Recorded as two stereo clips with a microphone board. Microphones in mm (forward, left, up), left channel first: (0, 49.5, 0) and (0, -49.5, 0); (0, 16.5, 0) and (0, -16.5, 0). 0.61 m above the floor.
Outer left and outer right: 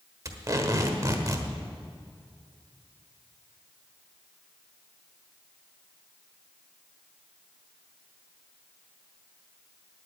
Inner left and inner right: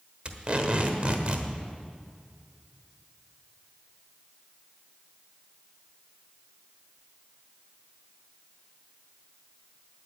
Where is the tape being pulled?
35° right (ahead or behind), 1.3 m.